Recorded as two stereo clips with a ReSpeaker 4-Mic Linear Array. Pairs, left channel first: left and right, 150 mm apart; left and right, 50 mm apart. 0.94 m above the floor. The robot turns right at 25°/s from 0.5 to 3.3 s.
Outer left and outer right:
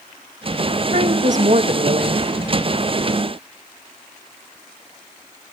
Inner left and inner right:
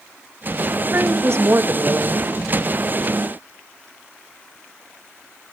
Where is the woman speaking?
120° right, 1.0 m; by 2.3 s 85° right, 1.0 m.